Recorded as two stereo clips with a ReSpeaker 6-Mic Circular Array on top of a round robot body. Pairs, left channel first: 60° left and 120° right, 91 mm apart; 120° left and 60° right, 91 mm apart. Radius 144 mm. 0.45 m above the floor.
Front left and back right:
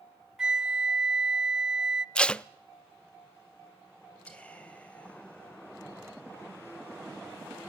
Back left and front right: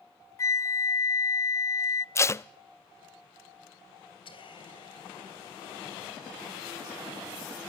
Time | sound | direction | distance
0.4 | a flute | 160° left | 0.5 m
2.1 | tape being pulled | 130° left | 0.6 m
4.2 | whispering | 135° left | 4 m